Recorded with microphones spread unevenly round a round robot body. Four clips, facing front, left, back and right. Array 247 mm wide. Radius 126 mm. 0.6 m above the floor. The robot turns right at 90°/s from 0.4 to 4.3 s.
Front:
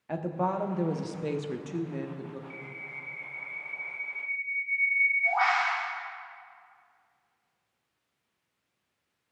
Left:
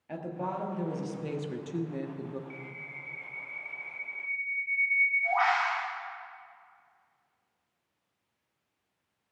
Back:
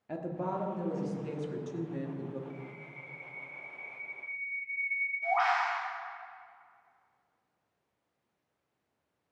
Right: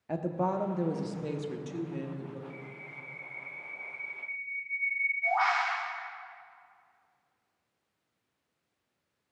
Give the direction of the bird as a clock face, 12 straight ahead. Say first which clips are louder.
Left 1 dB, front 1 dB; 11 o'clock.